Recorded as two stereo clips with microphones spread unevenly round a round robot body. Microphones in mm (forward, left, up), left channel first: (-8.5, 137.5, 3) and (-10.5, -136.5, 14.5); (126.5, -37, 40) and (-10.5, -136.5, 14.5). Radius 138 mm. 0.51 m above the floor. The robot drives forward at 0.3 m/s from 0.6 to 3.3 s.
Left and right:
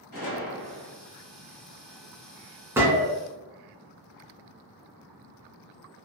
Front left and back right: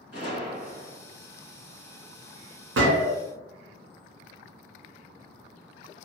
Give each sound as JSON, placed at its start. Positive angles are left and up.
{"t": 0.1, "sound": "a gunshot", "azimuth_deg": 75, "distance_m": 1.8}
{"t": 2.8, "sound": "a gunshot", "azimuth_deg": -175, "distance_m": 0.6}